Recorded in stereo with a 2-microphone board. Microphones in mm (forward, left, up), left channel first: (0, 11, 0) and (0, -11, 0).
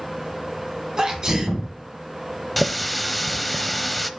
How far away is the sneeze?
About 2.5 m.